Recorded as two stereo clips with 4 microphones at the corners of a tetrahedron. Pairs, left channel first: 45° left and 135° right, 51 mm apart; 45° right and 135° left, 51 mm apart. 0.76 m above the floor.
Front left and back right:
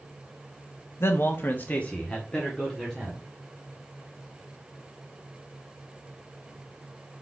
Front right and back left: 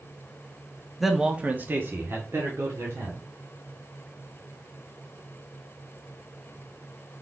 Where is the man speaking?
50° left, 1.0 m; by 3.2 s 125° left, 2.5 m.